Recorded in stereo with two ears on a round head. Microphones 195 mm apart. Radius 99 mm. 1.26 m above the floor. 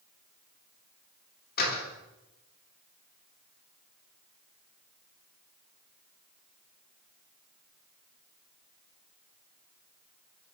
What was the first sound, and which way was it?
A door slam, 45° left (ahead or behind).